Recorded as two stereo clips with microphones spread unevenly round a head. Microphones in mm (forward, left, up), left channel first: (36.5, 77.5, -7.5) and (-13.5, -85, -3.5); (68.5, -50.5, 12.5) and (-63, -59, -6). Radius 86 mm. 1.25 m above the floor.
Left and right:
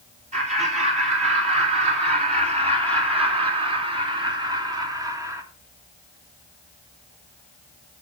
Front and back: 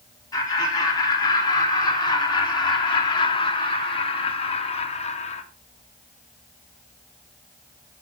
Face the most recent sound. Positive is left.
turn(degrees=-35)